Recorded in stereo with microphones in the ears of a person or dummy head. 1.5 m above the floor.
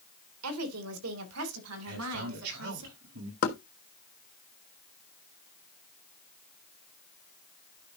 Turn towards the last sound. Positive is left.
turn(degrees=40)  # may be behind; listen again after turning